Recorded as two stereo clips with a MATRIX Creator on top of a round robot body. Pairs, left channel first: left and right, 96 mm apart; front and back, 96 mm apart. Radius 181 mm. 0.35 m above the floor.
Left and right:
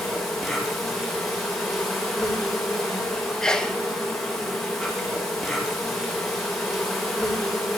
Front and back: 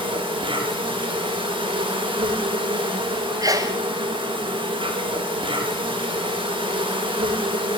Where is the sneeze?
170° left, 1.6 m.